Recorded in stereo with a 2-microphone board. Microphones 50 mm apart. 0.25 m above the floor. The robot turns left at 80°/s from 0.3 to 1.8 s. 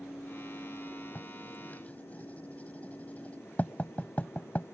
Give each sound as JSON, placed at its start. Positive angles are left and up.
{"t": 1.1, "sound": "writing", "side_deg": 35}